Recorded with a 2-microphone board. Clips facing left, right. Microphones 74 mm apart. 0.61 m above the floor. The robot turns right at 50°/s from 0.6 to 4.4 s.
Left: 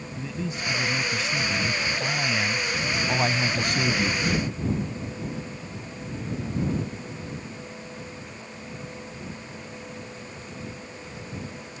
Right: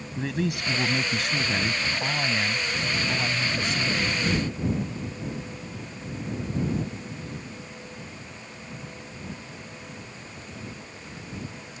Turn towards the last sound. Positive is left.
turn(degrees=100)